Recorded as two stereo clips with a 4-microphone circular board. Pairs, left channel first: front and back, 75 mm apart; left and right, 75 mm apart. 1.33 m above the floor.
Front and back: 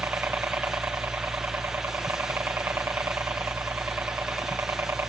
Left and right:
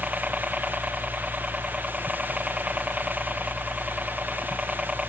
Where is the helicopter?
155° right.